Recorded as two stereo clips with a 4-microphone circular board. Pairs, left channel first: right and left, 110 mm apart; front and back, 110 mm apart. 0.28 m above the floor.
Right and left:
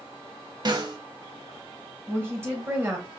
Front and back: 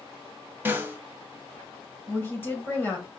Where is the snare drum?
115° left, 0.8 m.